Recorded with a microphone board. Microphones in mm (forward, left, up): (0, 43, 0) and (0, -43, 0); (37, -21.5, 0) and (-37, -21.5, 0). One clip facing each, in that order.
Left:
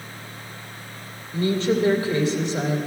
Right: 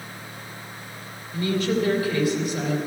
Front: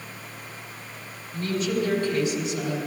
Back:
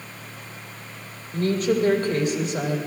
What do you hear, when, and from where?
1.3 s a woman speaking: 145° left, 2.5 m